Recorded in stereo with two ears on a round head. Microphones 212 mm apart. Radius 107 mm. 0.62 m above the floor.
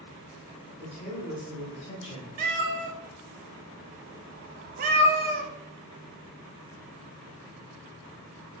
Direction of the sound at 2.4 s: 40° right (ahead or behind).